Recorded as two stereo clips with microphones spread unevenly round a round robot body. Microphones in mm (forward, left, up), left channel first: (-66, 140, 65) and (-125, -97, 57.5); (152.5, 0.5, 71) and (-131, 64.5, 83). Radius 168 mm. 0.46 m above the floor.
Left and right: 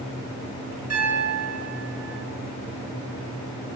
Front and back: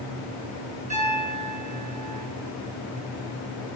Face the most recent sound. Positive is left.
turn(degrees=-125)